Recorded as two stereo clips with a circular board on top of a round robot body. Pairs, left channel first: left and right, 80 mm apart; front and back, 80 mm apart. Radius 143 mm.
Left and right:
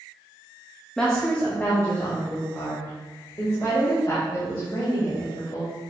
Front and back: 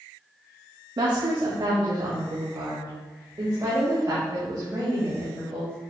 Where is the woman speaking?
170° left, 1.5 m; by 5.8 s 130° left, 4.5 m.